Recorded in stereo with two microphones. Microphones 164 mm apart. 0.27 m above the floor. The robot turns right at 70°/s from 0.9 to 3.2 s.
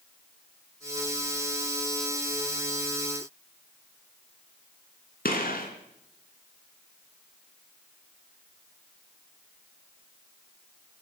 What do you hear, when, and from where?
5.2 s a gunshot: 65° left (ahead or behind), 2.5 m